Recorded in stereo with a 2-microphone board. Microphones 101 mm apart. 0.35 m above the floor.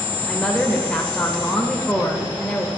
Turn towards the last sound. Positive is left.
turn(degrees=10)  # may be behind; listen again after turning